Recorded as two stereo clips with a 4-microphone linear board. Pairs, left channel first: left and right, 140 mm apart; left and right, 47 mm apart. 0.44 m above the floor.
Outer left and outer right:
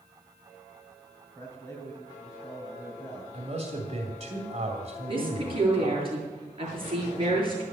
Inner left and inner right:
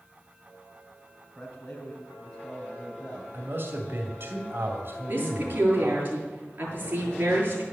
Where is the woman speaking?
40° right (ahead or behind), 7.5 m.